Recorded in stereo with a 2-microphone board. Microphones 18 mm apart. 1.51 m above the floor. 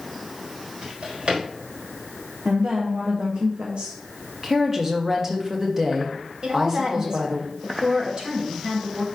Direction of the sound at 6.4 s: 45° right (ahead or behind).